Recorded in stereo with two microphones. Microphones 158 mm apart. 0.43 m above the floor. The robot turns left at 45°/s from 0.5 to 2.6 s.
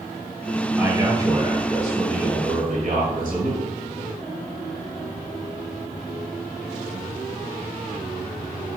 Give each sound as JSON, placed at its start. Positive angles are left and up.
{"t": 0.8, "sound": "a man speaking", "azimuth_deg": -10, "distance_m": 1.7}